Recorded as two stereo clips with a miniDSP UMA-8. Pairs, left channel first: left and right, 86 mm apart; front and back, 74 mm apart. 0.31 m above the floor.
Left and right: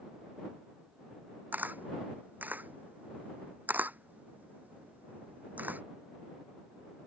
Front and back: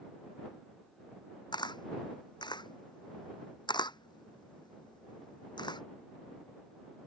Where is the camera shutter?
20° right.